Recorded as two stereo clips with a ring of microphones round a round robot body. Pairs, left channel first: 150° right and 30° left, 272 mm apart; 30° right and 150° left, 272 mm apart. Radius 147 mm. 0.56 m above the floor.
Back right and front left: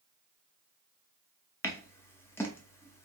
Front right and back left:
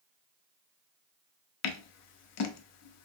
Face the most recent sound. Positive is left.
turn(degrees=-70)